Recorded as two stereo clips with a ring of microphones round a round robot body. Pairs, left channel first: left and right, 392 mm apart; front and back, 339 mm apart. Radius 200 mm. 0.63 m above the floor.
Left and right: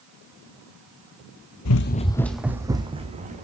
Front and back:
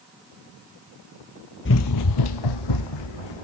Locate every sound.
1.6 s running footsteps: 50° left, 0.9 m; by 3.4 s 20° right, 3 m